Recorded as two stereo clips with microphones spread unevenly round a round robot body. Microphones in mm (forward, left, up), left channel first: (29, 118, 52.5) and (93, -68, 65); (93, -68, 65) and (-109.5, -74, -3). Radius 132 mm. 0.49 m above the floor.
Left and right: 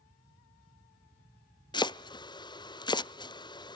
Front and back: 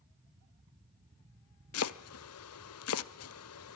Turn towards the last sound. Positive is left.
turn(degrees=40)